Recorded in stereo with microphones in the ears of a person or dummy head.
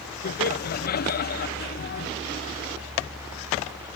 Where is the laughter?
45° left (ahead or behind), 0.7 m.